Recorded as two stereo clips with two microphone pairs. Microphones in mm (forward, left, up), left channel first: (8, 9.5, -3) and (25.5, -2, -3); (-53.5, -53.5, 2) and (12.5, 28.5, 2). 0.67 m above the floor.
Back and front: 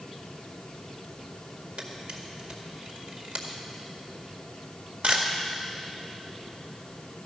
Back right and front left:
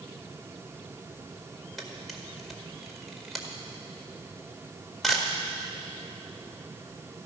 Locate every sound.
1.8 s a camera shutter: 40° right, 1.9 m